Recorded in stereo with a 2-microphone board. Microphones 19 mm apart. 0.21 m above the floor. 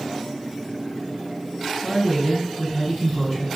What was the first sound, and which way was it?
A woman speaking, 5° left (ahead or behind).